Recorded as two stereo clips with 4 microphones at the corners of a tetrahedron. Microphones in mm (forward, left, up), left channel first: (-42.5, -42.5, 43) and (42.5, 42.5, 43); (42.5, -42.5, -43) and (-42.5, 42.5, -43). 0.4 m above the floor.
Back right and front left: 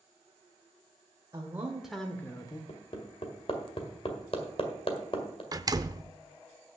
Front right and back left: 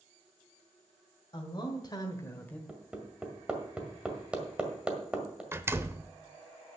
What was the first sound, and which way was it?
A woman speaking, 10° right.